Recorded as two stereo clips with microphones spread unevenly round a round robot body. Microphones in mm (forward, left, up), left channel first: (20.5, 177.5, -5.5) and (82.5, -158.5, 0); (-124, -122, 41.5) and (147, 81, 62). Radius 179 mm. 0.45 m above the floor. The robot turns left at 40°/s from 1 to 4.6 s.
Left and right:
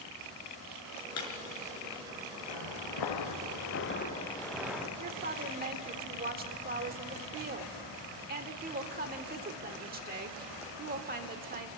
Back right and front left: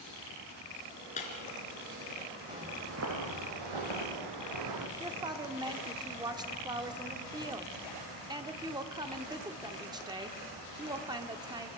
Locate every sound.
1.2 s breaking glass: 150° left, 3.5 m; by 1.3 s 140° left, 3.5 m
2.5 s footsteps: 115° left, 3.5 m; by 4.9 s 5° left, 4 m
5.0 s a woman speaking: 40° right, 1.5 m